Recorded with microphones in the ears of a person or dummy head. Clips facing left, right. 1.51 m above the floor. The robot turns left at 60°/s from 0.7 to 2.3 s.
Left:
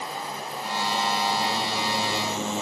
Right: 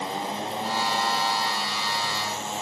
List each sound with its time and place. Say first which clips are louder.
0.0 s a motorcycle: right 4 dB; 20° right (ahead or behind); by 2.6 s 80° left